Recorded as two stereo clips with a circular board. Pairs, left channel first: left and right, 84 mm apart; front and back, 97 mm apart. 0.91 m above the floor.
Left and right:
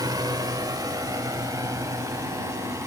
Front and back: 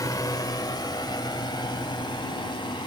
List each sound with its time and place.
0.0 s a drone: 50° right; by 2.9 s 40° right